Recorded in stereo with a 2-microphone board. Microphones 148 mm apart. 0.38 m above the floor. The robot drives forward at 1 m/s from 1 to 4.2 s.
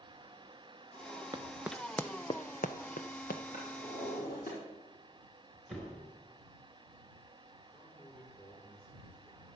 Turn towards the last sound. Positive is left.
turn(degrees=65)  # may be behind; listen again after turning